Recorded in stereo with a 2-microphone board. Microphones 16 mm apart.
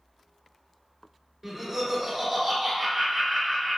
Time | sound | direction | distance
1.4 | laughter | 25° right (ahead or behind) | 1.7 m